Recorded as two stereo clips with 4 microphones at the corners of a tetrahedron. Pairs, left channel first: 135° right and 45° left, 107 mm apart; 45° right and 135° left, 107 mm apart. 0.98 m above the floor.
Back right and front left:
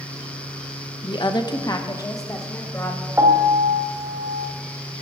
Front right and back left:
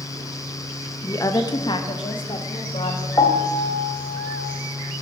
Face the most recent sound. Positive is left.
turn(degrees=-10)